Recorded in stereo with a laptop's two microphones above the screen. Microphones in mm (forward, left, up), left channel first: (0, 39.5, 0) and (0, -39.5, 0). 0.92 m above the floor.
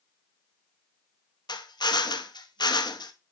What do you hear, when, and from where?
1.5 s a drill: 65° left (ahead or behind), 0.8 m